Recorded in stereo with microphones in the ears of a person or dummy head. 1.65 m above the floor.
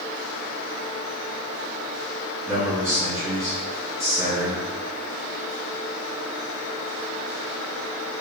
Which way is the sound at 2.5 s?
15° right (ahead or behind).